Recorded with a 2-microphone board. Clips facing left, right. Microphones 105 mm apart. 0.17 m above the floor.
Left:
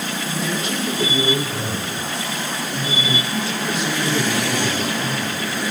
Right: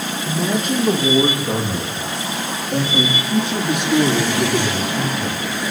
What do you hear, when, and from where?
0.3 s a man speaking: 40° right (ahead or behind), 7.5 m; by 5.5 s 65° right (ahead or behind), 8.5 m